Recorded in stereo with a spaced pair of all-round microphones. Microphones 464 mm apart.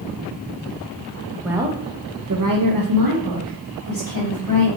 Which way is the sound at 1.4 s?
Centre (ahead or behind).